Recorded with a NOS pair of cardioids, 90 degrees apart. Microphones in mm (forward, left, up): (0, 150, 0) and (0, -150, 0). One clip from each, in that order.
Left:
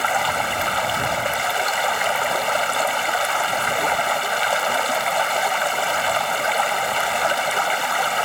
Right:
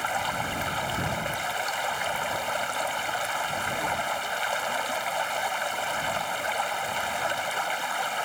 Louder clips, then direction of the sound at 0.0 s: Left 8 dB; 55° left.